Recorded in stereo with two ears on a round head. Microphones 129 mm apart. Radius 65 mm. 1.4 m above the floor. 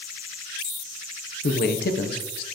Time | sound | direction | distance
1.4 | a man speaking | 70° left (ahead or behind) | 0.8 m